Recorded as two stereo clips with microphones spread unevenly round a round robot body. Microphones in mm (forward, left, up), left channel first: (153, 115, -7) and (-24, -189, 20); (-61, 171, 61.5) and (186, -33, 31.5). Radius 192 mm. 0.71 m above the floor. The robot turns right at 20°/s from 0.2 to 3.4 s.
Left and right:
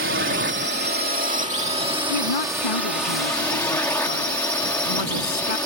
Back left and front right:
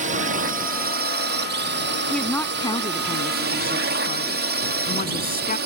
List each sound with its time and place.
0.0 s a drone: 85° right; by 5.7 s 20° right
2.1 s a woman speaking: 55° left; by 5.6 s 80° left